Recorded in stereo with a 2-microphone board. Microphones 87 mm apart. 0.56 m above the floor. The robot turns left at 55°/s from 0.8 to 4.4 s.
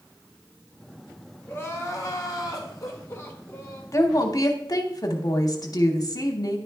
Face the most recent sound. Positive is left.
turn(degrees=45)  # may be behind; listen again after turning